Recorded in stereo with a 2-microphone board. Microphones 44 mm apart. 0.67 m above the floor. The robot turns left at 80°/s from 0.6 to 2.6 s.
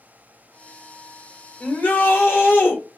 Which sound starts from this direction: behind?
A shout, at 1.6 s.